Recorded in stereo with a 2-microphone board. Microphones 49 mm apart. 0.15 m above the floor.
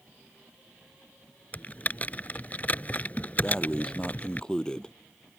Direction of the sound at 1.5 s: 35° left (ahead or behind).